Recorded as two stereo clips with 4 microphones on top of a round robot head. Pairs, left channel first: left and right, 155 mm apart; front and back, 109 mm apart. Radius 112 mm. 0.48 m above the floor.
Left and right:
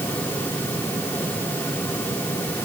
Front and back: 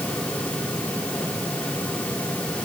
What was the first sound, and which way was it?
Only background noise.